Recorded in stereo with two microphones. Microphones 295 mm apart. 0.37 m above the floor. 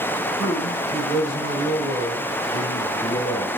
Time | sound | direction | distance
0.4 | a man speaking | centre (ahead or behind) | 2.5 m